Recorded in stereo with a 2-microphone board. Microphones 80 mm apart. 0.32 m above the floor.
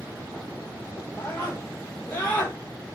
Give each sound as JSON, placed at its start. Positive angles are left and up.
{"t": 1.2, "sound": "a scream", "side_deg": 25, "distance_m": 8.5}